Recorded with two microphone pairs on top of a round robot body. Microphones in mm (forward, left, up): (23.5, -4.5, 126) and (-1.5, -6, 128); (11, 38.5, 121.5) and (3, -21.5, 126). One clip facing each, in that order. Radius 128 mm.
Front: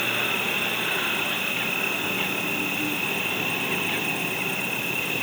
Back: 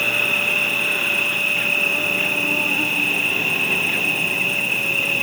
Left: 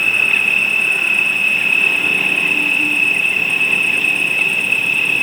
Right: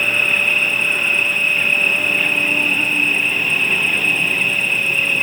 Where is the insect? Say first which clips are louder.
Back 6 dB, left 1 dB; 145° right, 0.8 m.